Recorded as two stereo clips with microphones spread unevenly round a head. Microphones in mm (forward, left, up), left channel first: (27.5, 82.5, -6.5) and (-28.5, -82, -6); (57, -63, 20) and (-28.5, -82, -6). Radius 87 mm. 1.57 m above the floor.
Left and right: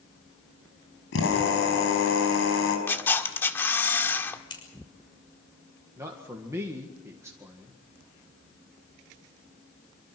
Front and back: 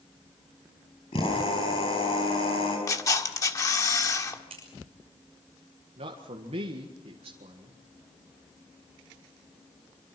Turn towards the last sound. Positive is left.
turn(degrees=175)